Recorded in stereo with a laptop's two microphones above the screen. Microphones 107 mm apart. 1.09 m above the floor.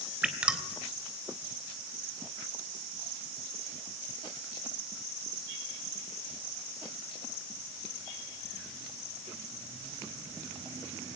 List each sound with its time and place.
0.2 s dripping: 10° right (ahead or behind), 3 m